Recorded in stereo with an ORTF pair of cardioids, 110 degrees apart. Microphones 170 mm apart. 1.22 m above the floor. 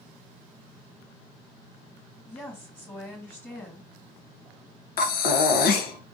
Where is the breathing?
65° left, 0.6 m.